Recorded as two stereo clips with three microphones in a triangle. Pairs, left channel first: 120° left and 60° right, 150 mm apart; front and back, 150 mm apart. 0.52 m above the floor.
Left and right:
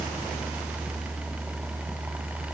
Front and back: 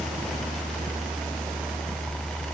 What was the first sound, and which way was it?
Only background noise.